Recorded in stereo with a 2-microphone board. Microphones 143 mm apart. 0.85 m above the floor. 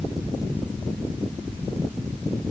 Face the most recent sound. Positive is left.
No sound to turn to.